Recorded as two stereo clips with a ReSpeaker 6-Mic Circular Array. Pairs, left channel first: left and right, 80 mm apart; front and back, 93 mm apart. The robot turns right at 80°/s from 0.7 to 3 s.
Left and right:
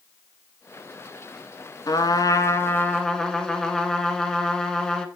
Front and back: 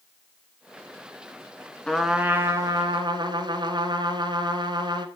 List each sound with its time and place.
1.9 s a trumpet: 75° left, 1.2 m; by 5.0 s 170° left, 1.2 m